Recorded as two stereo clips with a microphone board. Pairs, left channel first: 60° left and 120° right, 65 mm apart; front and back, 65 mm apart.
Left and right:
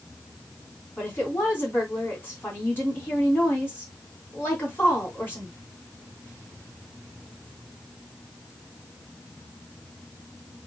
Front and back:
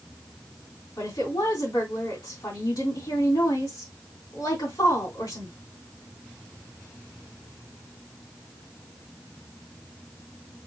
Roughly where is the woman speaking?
Ahead.